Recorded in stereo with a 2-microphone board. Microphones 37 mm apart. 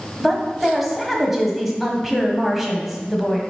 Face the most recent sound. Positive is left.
turn(degrees=-5)  # may be behind; listen again after turning